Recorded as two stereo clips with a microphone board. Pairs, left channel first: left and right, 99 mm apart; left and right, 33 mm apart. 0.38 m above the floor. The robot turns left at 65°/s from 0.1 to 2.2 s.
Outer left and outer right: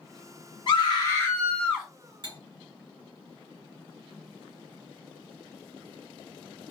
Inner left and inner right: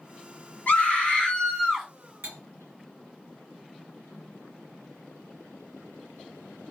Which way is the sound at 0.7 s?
80° left.